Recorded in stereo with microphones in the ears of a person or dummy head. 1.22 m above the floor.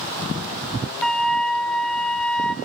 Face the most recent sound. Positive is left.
turn(degrees=0)  # may be behind; listen again after turning